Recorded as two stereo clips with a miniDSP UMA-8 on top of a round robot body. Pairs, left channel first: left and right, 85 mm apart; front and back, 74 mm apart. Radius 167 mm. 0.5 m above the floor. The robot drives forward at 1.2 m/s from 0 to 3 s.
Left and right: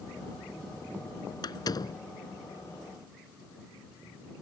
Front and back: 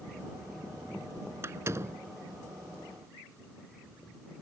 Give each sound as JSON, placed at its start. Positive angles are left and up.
{"t": 1.4, "sound": "a door slam", "azimuth_deg": 125}